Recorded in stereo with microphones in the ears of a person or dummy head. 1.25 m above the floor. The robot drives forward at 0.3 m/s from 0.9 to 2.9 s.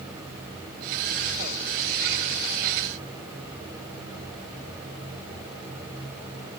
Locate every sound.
Only background noise.